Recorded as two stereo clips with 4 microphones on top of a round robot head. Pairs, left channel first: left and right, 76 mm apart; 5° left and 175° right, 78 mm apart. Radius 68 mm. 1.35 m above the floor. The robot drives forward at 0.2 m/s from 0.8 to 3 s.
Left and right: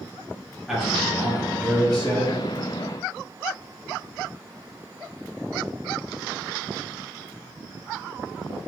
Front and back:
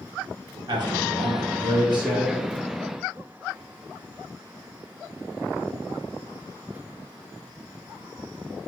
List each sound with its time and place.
0.7 s a man speaking: 175° right, 0.7 m